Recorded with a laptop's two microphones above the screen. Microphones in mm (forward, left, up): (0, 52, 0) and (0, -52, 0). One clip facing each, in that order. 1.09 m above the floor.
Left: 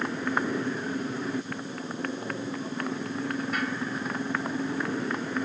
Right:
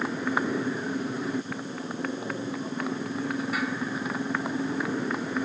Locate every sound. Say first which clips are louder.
0.0 s a motorcycle: right 1 dB; 5° right (ahead or behind)